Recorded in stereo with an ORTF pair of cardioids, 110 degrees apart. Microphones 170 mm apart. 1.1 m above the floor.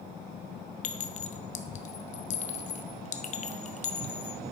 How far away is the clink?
About 0.8 m.